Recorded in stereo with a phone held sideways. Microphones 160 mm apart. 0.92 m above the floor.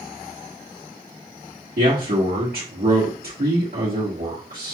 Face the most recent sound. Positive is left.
turn(degrees=-70)  # may be behind; listen again after turning